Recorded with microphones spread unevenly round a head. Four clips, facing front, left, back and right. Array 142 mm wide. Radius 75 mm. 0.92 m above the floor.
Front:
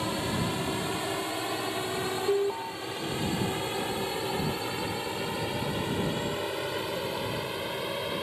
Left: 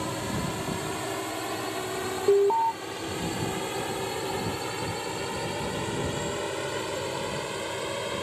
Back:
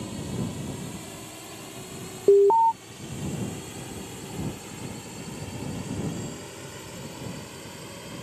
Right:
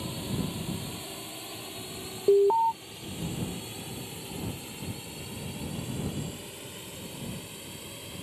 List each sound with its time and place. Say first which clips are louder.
0.0 s a drone: left 4 dB, front 3 dB; 35° left; by 8.2 s 50° left
2.3 s an alarm: even, back 13 dB; 175° right